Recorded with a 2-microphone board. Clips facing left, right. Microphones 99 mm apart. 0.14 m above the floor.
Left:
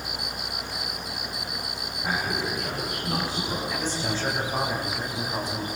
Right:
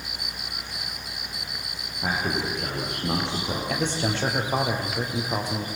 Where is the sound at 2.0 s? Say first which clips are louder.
Right 2 dB; 70° right (ahead or behind), 7.5 m; by 3.6 s 75° right (ahead or behind), 7.5 m.